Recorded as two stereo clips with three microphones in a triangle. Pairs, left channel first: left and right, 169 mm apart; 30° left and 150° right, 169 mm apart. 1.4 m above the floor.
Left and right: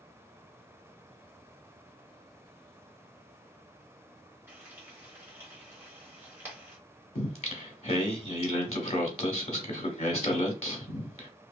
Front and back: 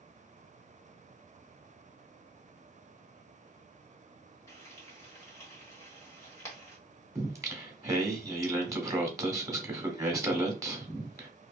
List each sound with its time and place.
4.5 s frying: 30° right, 1.3 m
7.2 s singing: 140° left, 0.8 m